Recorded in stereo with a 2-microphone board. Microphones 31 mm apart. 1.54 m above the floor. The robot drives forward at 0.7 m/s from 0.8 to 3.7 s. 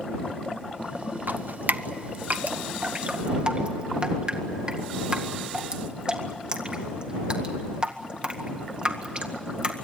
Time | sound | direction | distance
1.3 | dripping | 75° right (ahead or behind) | 0.9 m